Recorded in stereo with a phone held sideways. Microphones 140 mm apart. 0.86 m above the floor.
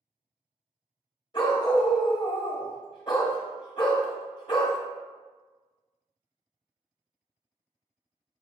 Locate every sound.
1.3 s a dog barking: 35° left (ahead or behind), 0.7 m